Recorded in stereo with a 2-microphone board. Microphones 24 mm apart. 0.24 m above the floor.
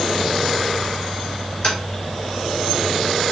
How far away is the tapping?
About 3 m.